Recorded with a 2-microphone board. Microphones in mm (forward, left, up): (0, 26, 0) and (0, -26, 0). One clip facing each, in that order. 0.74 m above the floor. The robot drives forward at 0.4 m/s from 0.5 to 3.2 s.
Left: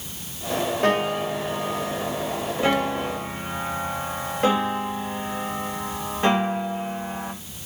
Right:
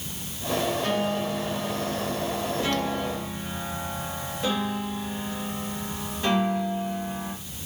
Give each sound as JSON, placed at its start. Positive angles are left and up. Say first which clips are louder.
{"t": 0.8, "sound": "a piano", "louder": "left 4 dB", "side_deg": 60, "distance_m": 2.5}